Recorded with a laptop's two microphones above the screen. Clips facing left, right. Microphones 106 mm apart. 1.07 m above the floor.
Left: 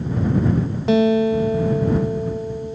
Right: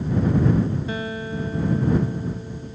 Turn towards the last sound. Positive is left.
turn(degrees=85)